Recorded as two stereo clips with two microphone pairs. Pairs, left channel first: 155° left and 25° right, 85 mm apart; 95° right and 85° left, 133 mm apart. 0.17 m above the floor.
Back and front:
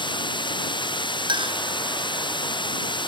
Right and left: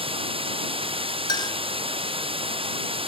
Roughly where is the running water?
Behind left.